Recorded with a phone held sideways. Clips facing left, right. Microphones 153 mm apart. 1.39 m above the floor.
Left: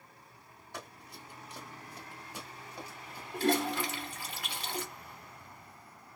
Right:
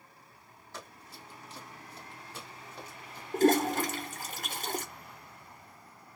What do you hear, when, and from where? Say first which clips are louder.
0.7 s running footsteps: left 1 dB; 15° left (ahead or behind), 1.8 m; by 3.2 s 10° left (ahead or behind), 1.4 m
3.3 s a toilet flushing: right 5 dB; 45° right (ahead or behind), 0.6 m